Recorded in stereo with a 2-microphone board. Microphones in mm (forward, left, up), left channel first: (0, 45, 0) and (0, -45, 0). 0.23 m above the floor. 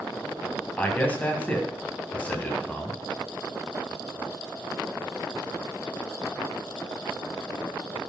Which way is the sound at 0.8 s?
20° left (ahead or behind).